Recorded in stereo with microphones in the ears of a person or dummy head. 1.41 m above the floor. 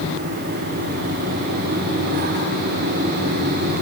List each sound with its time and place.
Only background noise.